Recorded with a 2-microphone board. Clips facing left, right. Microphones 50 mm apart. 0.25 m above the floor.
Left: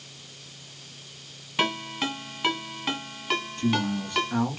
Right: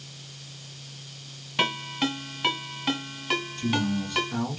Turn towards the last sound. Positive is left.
turn(degrees=35)  # may be behind; listen again after turning